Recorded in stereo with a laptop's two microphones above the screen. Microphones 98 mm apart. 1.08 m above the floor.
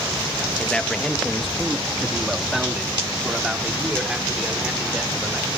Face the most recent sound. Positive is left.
turn(degrees=-10)  # may be behind; listen again after turning